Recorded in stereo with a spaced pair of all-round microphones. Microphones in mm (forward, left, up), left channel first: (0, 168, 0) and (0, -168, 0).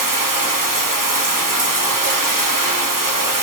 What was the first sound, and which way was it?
Running water, 70° right (ahead or behind).